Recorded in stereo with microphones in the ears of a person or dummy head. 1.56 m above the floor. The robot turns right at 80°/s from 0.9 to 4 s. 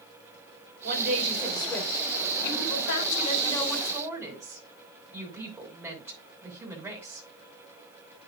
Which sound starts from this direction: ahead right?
A woman speaking, at 0.8 s.